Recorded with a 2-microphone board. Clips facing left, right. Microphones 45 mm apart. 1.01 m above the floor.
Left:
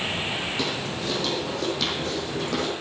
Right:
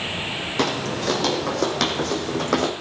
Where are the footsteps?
55° right (ahead or behind), 1.8 m.